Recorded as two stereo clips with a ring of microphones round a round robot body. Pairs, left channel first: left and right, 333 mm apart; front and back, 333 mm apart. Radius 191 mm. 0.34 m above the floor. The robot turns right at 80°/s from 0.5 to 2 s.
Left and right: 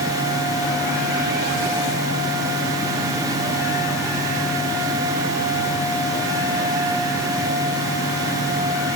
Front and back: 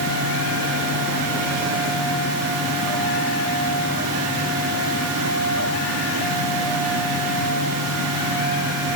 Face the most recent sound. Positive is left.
No sound to turn to.